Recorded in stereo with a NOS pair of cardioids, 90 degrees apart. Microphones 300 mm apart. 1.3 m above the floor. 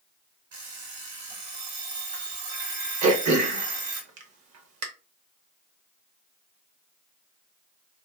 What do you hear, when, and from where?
0.5 s an alarm clock: 65° right, 1.8 m
3.0 s throat clearing: 60° right, 1.0 m